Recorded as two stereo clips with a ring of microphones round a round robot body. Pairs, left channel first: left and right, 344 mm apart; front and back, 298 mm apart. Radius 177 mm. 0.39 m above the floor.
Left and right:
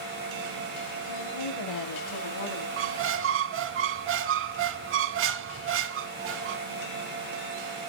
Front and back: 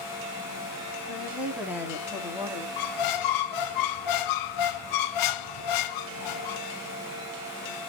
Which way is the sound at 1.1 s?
90° left.